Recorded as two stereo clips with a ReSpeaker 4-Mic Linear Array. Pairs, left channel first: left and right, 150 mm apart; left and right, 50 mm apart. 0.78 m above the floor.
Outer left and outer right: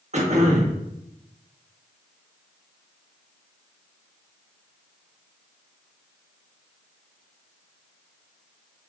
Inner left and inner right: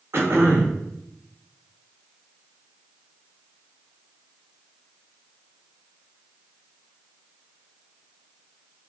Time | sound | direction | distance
0.1 | throat clearing | 50° right (ahead or behind) | 1.1 m